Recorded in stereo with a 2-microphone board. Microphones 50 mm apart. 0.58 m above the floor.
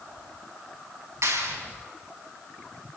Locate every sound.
1.2 s a clap: 70° right (ahead or behind), 4.5 m